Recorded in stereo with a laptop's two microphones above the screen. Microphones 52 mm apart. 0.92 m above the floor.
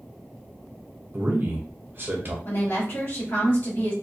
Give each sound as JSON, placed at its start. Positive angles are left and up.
{"t": 1.1, "sound": "a man speaking", "side_deg": -40, "distance_m": 0.7}
{"t": 2.5, "sound": "a woman speaking", "side_deg": 45, "distance_m": 1.1}